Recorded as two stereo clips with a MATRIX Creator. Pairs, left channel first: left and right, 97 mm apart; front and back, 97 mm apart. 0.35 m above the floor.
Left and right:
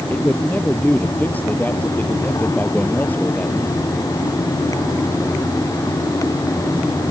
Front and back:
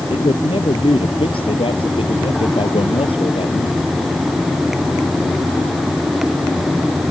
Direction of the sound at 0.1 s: 20° left.